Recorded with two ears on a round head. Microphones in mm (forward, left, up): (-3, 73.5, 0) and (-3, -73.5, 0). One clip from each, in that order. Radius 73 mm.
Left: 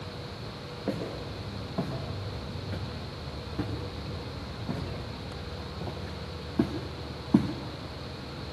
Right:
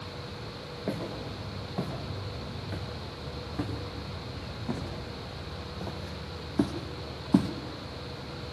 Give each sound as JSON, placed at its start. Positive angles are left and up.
{"t": 0.9, "sound": "footsteps", "side_deg": -25, "distance_m": 5.5}